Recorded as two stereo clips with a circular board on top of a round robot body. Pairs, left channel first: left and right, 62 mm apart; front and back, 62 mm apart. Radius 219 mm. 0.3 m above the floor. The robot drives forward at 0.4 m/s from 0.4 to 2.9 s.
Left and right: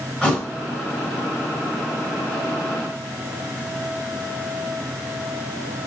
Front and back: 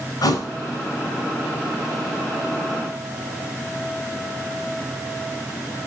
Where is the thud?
15° left, 2 m.